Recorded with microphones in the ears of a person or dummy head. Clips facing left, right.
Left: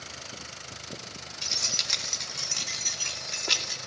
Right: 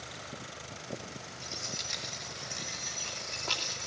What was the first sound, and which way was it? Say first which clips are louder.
Keys jangling: left 2 dB; 75° left (ahead or behind).